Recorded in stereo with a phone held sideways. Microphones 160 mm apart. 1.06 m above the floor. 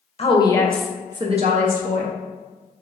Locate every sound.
0.2 s a woman speaking: 40° left (ahead or behind), 0.8 m; by 2.1 s 70° right (ahead or behind), 1.1 m